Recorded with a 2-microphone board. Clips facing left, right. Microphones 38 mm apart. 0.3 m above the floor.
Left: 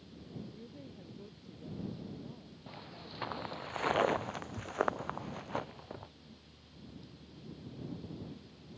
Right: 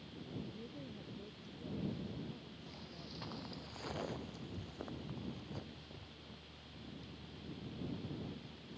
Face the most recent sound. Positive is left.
turn(degrees=50)  # may be behind; listen again after turning